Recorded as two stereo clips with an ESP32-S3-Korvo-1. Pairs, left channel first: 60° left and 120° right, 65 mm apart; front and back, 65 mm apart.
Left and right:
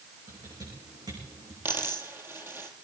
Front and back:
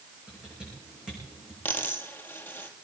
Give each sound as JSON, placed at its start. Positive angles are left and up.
{"t": 0.3, "sound": "typing on a keyboard", "azimuth_deg": -100, "distance_m": 8.5}
{"t": 1.6, "sound": "a dropped coin", "azimuth_deg": -65, "distance_m": 1.8}